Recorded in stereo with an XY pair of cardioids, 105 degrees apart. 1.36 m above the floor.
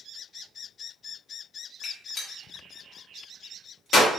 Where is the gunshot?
60° left, 1.1 m.